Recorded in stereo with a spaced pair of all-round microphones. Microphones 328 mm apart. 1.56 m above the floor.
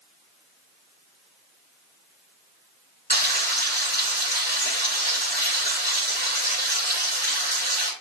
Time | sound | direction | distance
3.1 | frying | 25° left (ahead or behind) | 5.5 m